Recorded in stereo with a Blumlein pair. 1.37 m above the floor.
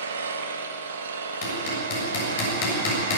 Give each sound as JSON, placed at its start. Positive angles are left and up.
{"t": 0.0, "sound": "an engine running", "azimuth_deg": -70, "distance_m": 1.9}
{"t": 1.4, "sound": "hammering", "azimuth_deg": 50, "distance_m": 7.0}